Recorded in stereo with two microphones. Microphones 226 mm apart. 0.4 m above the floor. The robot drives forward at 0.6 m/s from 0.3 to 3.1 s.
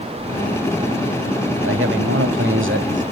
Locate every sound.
1.6 s a man speaking: 60° right (ahead or behind), 1.6 m; by 3.0 s 50° right (ahead or behind), 1.8 m